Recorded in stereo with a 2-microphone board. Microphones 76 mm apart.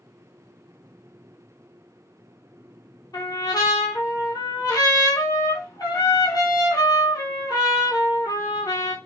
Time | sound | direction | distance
3.1 | a trumpet | 65° left (ahead or behind) | 0.8 m